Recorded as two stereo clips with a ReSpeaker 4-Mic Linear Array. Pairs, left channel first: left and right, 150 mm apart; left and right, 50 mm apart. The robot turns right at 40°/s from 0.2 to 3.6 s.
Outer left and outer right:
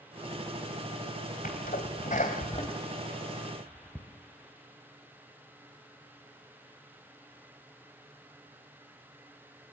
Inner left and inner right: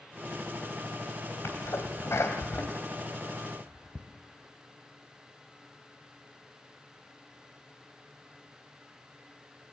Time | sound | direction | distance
1.4 | a sneeze | 70° left (ahead or behind) | 2.5 m